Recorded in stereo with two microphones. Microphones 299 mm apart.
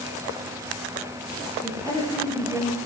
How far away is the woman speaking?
About 9.5 m.